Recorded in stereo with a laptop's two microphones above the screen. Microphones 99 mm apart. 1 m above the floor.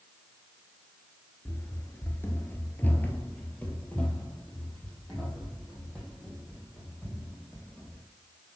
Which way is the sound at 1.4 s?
25° left (ahead or behind).